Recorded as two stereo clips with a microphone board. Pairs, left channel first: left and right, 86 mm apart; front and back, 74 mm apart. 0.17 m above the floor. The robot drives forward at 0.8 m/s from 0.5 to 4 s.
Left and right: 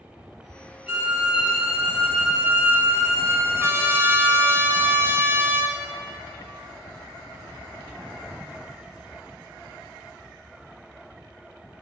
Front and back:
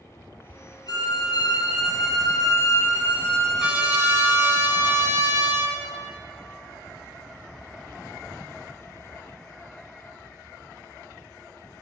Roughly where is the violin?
Ahead.